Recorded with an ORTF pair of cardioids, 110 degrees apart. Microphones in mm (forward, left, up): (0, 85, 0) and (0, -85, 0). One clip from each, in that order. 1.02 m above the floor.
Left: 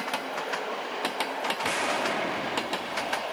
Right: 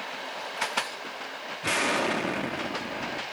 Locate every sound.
1.6 s an explosion: 25° right, 0.9 m